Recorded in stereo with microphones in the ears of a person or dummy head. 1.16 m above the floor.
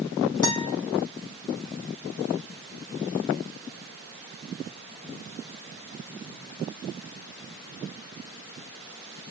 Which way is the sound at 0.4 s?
20° left (ahead or behind).